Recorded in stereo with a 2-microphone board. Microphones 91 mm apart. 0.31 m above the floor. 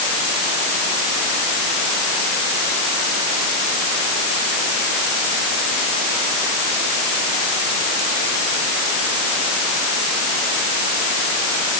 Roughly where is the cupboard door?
No cupboard door in this recording.